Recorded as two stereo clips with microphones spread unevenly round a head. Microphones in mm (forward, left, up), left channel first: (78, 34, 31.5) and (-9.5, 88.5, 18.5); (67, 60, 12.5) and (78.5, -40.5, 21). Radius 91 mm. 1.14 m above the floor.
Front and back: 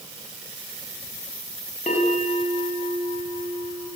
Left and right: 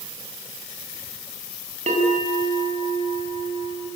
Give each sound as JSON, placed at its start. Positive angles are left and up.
{"t": 1.9, "sound": "a bell", "azimuth_deg": -85, "distance_m": 7.5}